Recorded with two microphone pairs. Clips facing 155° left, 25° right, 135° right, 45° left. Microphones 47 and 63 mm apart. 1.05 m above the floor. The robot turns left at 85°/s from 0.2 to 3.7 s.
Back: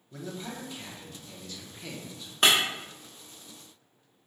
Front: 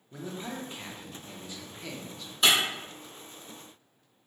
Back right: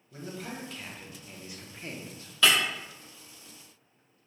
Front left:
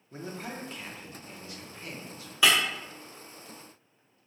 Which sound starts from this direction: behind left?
Breaking glass, at 2.4 s.